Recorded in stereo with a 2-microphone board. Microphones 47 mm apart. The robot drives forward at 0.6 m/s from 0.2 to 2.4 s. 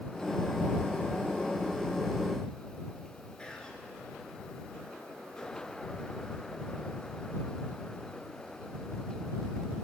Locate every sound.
3.4 s whispering: 20° left (ahead or behind), 1.1 m